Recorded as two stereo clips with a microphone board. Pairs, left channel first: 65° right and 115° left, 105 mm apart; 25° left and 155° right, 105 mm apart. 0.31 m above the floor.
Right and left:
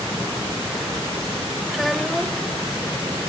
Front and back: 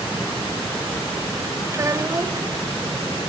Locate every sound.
1.7 s a child speaking: 160° right, 0.9 m